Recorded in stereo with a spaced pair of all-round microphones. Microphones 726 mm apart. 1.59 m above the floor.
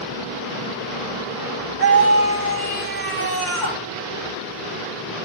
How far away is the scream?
About 3.5 m.